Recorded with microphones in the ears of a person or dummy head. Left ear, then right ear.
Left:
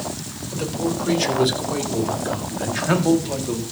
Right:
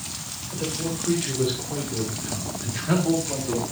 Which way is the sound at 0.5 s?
80° left.